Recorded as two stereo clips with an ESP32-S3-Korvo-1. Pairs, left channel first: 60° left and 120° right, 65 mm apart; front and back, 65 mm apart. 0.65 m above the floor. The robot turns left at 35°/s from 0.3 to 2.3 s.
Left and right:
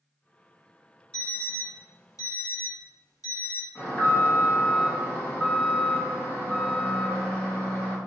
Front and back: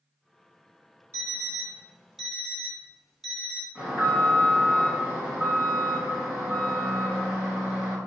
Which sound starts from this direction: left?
An alarm, at 3.8 s.